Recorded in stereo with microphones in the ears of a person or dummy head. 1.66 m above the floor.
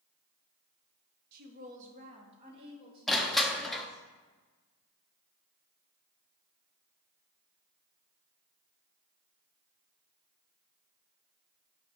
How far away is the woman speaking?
About 1.3 m.